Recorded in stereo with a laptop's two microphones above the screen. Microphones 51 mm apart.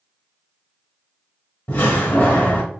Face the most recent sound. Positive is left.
turn(degrees=55)  # may be behind; listen again after turning